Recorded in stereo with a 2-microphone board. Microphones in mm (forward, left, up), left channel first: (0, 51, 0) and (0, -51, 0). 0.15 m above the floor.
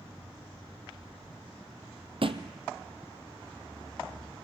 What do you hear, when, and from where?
2.2 s a thud: 60° right (ahead or behind), 1.5 m